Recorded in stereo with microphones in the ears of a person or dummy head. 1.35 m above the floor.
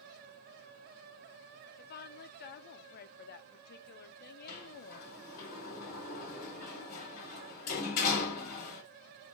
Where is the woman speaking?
50° left (ahead or behind), 0.6 m.